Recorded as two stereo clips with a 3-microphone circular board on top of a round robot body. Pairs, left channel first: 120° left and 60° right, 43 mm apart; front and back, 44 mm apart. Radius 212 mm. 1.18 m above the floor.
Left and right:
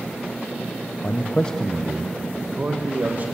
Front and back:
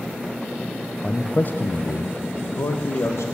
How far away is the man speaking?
About 0.8 m.